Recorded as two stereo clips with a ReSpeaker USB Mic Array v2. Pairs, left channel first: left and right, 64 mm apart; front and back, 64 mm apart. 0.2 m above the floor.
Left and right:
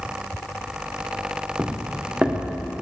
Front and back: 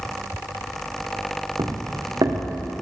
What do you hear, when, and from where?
1.6 s footsteps: 170° right, 2 m; by 2.7 s 165° right, 3 m